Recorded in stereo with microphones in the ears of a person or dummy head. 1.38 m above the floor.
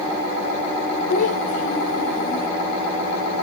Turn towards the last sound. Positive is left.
turn(degrees=50)  # may be behind; listen again after turning